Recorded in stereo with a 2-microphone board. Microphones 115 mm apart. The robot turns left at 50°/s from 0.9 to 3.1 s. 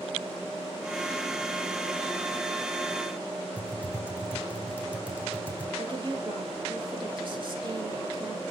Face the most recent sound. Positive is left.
turn(degrees=-45)  # may be behind; listen again after turning